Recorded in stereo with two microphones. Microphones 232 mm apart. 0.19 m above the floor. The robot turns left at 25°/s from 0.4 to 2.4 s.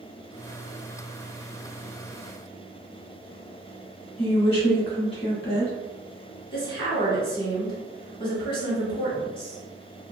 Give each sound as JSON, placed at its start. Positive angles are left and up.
{"t": 4.2, "sound": "a woman speaking", "side_deg": 25, "distance_m": 1.1}
{"t": 6.5, "sound": "a woman speaking", "side_deg": 20, "distance_m": 1.4}